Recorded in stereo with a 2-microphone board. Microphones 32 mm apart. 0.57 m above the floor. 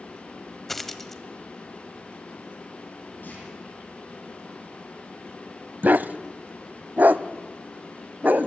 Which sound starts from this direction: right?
A dog barking, at 5.8 s.